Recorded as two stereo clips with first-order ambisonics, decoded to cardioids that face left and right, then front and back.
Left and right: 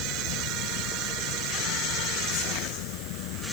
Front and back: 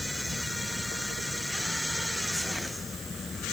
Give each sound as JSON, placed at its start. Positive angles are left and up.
{"t": 0.0, "sound": "an insect", "azimuth_deg": 75}